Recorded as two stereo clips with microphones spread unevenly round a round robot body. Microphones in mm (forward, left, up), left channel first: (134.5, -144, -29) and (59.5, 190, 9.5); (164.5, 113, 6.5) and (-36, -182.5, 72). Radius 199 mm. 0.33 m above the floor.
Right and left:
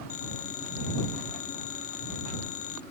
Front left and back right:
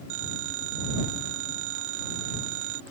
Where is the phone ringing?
105° right.